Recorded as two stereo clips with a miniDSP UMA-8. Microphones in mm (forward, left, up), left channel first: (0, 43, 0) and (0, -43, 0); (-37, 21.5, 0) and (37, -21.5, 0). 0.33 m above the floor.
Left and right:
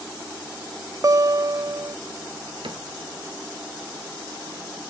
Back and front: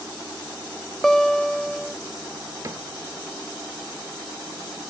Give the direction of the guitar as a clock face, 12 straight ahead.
4 o'clock.